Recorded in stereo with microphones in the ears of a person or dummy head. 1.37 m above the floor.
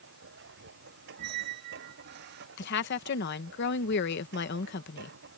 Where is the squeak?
55° right (ahead or behind).